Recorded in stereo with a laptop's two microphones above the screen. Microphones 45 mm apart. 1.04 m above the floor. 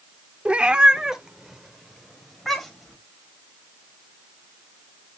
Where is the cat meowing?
30° right (ahead or behind), 1.0 m; by 3.0 s 5° left (ahead or behind), 2.5 m.